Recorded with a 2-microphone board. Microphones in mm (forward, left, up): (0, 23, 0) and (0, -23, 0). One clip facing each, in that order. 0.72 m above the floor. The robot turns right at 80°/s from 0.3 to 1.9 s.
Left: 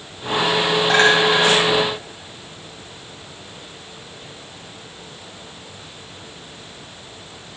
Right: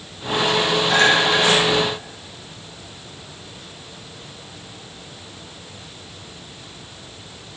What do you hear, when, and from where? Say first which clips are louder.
0.9 s a clink: left 2 dB; 45° left (ahead or behind), 3 m; by 1.4 s centre (ahead or behind), 3 m